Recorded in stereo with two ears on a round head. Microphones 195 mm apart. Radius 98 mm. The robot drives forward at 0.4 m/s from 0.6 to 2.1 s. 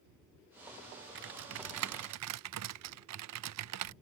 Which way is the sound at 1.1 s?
55° right (ahead or behind).